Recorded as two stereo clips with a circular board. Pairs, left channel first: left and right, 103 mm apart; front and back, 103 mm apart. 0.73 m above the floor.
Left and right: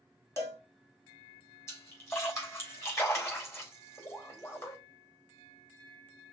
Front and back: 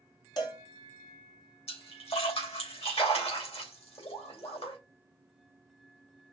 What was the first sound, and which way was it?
A cowbell, 35° left.